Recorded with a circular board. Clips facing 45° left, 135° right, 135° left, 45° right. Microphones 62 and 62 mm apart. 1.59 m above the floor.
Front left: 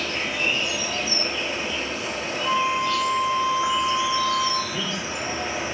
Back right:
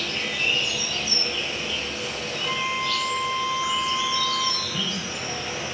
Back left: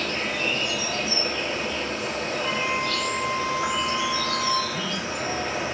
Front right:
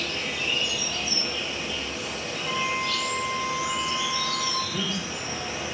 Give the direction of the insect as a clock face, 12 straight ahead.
8 o'clock.